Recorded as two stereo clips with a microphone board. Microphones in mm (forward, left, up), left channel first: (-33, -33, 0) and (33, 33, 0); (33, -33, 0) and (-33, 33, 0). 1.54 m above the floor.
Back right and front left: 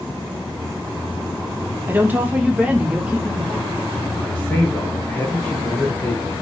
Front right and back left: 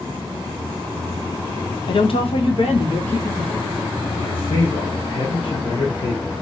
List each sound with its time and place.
1.9 s a woman speaking: 20° right, 0.6 m; by 3.7 s 35° right, 1.7 m
4.2 s a man speaking: 65° right, 1.1 m